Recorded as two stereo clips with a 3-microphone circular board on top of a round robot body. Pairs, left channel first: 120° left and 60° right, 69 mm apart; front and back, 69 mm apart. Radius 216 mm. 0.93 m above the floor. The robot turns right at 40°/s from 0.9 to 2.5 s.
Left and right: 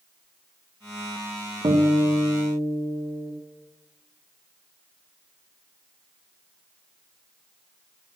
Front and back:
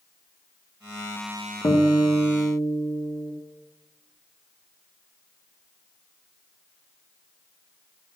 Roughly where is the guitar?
Ahead right.